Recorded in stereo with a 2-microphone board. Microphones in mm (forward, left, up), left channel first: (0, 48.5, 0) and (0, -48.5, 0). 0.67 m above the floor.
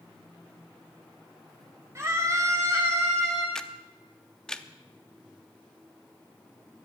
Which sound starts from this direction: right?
A scream, at 1.9 s.